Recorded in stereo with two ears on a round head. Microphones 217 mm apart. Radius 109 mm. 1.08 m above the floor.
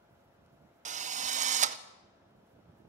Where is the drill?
30° right (ahead or behind), 0.6 m.